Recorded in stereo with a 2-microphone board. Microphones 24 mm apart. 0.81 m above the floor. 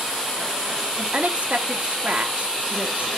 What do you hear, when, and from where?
1.0 s a woman speaking: 55° right (ahead or behind), 1.4 m